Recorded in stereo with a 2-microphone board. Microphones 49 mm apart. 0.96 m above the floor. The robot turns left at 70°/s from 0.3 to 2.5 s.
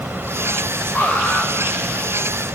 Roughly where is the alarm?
Behind left.